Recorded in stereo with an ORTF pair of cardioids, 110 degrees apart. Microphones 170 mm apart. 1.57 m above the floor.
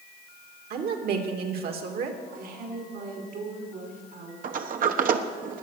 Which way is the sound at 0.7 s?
65° right.